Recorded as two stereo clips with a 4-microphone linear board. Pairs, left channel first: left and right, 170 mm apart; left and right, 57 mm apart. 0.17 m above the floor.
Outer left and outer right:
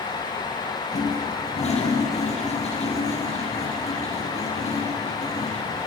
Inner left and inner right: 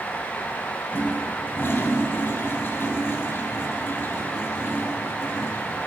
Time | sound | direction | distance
0.9 | a toilet flushing | 40° left (ahead or behind) | 3 m